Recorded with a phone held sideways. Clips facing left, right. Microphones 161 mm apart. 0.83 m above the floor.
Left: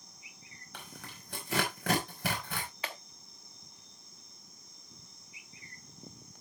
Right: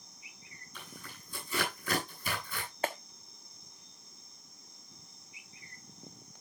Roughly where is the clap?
Right.